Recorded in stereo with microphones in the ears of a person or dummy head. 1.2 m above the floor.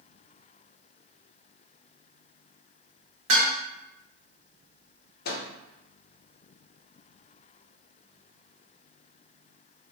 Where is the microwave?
45° left (ahead or behind), 0.6 m.